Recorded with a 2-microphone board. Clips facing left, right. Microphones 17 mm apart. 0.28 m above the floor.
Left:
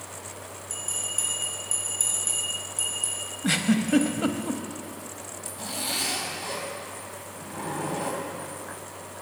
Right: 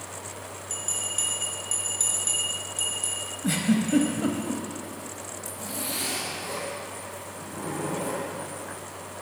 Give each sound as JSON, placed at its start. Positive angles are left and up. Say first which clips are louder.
{"t": 0.7, "sound": "a bell", "louder": "right 1 dB", "side_deg": -40, "distance_m": 3.5}
{"t": 3.4, "sound": "a giggle", "louder": "left 1 dB", "side_deg": 40, "distance_m": 0.6}
{"t": 5.5, "sound": "a zipper", "louder": "left 3 dB", "side_deg": 45, "distance_m": 2.0}